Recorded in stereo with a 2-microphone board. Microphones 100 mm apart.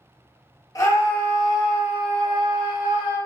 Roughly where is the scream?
Left.